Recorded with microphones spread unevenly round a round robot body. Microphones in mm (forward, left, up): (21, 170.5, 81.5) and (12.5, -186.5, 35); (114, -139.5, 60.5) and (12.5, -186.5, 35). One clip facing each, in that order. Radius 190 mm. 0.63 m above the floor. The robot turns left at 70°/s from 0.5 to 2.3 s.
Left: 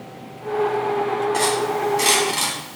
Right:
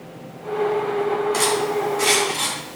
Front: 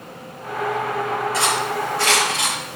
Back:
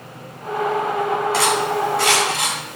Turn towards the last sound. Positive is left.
turn(degrees=135)